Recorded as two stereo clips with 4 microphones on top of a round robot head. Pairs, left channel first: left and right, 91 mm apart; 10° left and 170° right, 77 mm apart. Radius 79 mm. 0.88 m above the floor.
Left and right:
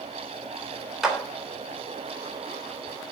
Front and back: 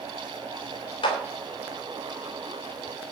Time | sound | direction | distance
1.0 | a clap | 5° right | 3 m